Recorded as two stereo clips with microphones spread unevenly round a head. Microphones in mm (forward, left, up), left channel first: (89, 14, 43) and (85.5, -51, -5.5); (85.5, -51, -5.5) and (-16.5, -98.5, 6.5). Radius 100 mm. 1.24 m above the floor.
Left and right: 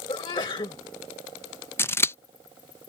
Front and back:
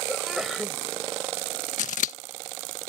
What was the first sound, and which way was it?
A sneeze, 115° left.